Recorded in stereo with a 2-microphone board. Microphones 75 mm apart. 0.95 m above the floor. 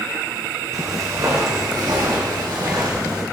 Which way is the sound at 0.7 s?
50° right (ahead or behind).